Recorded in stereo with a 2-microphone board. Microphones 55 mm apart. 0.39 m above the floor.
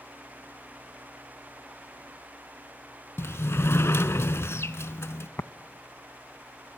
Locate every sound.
3.2 s a sliding door: 60° left (ahead or behind), 0.7 m
5.4 s tapping: 70° left (ahead or behind), 0.6 m